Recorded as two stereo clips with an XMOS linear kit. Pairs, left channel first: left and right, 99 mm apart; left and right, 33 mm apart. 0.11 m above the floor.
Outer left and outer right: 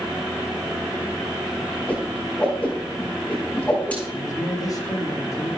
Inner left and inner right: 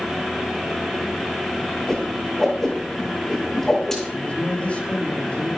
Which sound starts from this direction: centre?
A whoosh, at 1.9 s.